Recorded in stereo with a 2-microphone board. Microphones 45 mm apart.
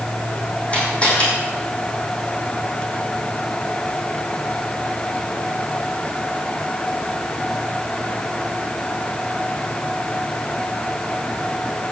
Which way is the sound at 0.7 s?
30° left (ahead or behind).